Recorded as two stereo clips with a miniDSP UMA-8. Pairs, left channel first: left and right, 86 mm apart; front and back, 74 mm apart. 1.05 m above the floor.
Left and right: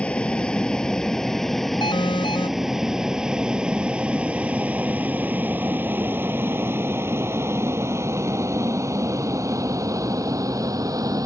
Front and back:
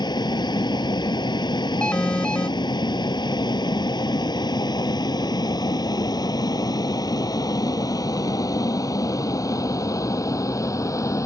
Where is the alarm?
75° left.